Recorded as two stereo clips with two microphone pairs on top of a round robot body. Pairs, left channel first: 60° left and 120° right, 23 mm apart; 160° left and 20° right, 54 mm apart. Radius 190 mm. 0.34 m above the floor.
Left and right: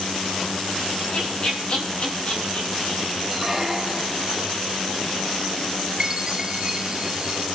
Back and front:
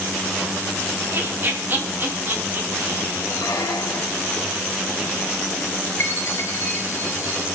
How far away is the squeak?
About 2 m.